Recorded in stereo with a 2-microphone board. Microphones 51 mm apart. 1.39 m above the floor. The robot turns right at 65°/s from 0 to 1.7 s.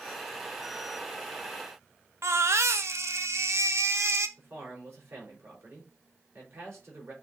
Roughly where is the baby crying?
Right.